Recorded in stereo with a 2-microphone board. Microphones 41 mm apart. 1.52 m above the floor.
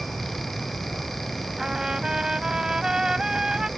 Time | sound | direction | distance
1.6 | a trumpet | 15° right (ahead or behind) | ?